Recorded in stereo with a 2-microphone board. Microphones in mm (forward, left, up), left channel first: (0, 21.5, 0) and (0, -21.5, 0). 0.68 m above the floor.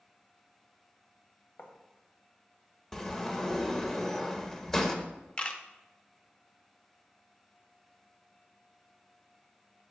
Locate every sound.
1.6 s writing: 60° left (ahead or behind), 1.1 m
2.9 s a sliding door: 10° left (ahead or behind), 0.7 m
5.4 s a camera shutter: 25° left (ahead or behind), 0.5 m